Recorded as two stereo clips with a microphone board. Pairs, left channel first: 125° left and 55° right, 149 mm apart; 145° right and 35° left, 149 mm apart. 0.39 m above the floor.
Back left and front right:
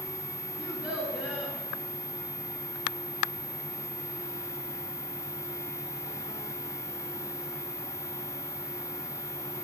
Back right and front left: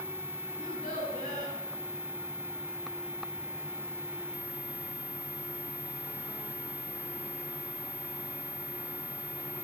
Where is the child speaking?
135° right, 4 m.